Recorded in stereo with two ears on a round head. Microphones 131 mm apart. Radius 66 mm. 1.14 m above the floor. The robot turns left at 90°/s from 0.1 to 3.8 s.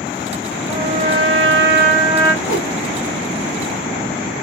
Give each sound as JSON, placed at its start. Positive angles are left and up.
{"t": 0.7, "sound": "a trumpet", "azimuth_deg": -15, "distance_m": 1.7}
{"t": 2.4, "sound": "a whoosh", "side_deg": 45, "distance_m": 1.7}